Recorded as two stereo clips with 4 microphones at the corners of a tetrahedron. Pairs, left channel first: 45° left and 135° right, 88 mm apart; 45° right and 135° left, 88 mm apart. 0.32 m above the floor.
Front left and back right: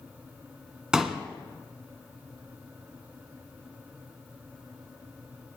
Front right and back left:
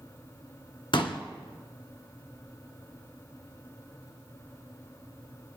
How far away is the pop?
About 2 m.